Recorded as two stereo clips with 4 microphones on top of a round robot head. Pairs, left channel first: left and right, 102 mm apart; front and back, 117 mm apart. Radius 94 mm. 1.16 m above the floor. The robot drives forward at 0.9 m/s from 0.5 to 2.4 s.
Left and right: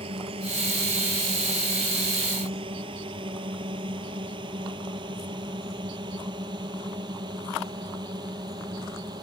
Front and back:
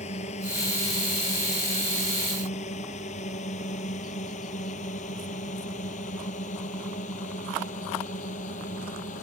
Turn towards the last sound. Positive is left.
turn(degrees=-30)